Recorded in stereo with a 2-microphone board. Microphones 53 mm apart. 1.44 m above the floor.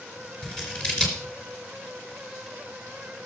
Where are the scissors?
15° left (ahead or behind), 3.5 m.